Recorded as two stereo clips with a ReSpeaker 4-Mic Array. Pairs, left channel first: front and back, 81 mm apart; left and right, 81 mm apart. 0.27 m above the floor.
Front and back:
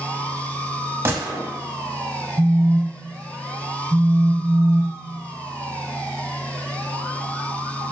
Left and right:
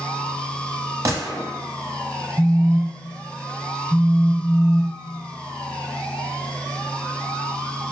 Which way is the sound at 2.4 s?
135° right.